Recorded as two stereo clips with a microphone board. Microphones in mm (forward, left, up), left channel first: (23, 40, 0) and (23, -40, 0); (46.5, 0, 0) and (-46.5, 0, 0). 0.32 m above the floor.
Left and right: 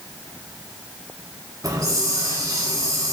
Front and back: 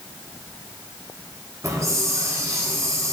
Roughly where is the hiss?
Behind right.